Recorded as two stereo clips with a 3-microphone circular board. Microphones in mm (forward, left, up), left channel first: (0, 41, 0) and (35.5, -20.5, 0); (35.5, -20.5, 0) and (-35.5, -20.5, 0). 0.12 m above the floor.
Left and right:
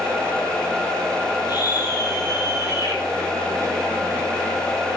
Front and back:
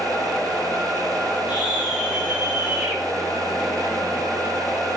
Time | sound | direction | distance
1.5 | a scream | 105° left | 4.5 m